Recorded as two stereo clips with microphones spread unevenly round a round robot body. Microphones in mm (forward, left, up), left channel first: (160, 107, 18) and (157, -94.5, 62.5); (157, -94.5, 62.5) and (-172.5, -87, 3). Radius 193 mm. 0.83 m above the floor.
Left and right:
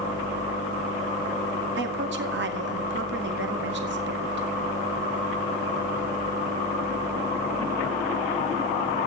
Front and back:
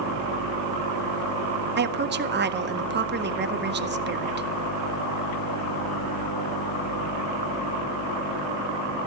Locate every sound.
1.8 s a woman speaking: 135° right, 1.8 m